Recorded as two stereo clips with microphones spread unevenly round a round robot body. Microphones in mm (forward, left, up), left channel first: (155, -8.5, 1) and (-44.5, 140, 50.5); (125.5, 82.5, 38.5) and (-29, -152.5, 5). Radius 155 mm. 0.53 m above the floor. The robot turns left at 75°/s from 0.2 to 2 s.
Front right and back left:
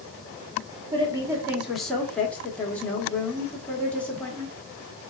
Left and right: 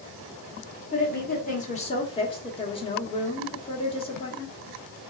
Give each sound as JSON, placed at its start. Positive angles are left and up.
{"t": 0.9, "sound": "a woman speaking", "azimuth_deg": 85, "distance_m": 1.0}